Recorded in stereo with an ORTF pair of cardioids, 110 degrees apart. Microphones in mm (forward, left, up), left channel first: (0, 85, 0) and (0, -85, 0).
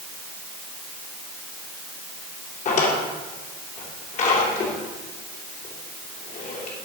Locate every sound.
2.6 s a drawer: 45° left, 2.5 m